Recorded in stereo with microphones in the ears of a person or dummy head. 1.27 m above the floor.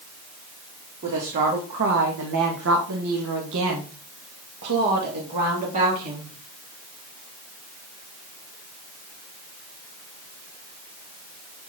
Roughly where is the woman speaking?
Right.